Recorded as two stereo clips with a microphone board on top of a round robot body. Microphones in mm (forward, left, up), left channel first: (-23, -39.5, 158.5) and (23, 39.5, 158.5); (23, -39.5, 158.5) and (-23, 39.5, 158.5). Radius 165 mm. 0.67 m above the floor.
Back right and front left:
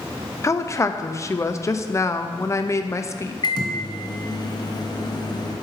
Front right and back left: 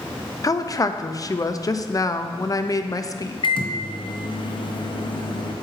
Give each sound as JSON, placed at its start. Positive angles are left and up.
{"t": 0.4, "sound": "a woman speaking", "azimuth_deg": -80, "distance_m": 0.7}
{"t": 3.4, "sound": "a microwave", "azimuth_deg": -80, "distance_m": 1.0}